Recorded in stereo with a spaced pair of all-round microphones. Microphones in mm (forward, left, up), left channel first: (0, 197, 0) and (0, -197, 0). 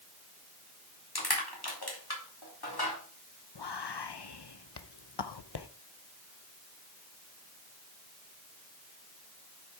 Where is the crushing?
70° left (ahead or behind), 3 m.